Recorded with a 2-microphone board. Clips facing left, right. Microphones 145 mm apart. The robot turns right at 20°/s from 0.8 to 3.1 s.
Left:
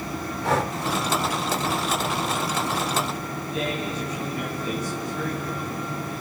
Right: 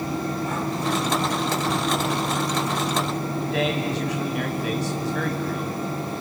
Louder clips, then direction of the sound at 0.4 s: Left 2 dB; 80° left.